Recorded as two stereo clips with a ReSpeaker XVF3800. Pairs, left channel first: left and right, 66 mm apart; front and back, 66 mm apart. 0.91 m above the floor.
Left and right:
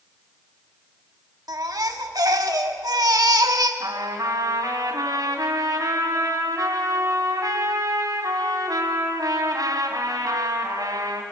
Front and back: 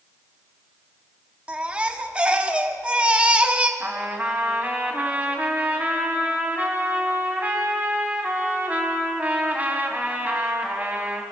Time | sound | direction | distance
1.5 | a baby crying | 110° right | 1.2 m
3.8 | a trumpet | 115° right | 3 m